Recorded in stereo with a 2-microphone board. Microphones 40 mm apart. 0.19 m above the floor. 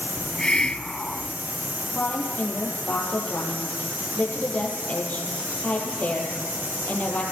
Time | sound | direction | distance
0.2 | a hiss | 20° left (ahead or behind) | 0.8 m
1.9 | a woman speaking | 30° left (ahead or behind) | 6 m